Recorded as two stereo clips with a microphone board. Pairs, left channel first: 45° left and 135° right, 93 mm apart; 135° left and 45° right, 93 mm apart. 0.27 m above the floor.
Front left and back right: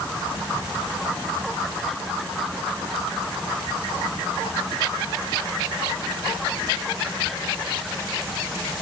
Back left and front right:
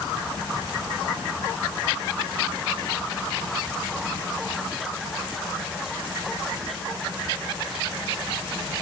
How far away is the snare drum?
No snare drum in this recording.